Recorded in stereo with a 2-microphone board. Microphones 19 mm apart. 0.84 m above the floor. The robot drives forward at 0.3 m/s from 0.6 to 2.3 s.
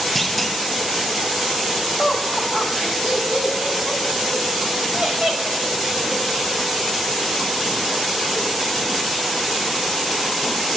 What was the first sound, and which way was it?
A clunk, 5° left (ahead or behind).